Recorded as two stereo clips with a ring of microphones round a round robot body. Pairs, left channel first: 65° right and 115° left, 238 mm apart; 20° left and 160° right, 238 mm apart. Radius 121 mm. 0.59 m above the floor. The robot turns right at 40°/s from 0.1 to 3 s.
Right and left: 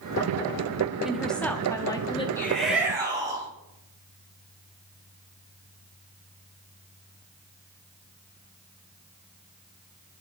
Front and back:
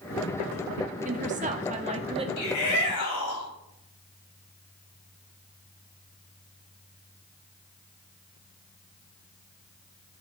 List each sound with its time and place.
1.1 s a woman speaking: 160° right, 0.9 m; by 2.3 s 115° right, 0.9 m
2.4 s a shout: 10° left, 3.5 m; by 3.5 s 35° left, 3.5 m